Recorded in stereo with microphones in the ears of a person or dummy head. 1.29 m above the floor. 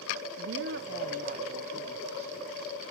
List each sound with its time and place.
0.4 s a woman speaking: 70° right (ahead or behind), 0.6 m; by 2.9 s 35° right (ahead or behind), 2 m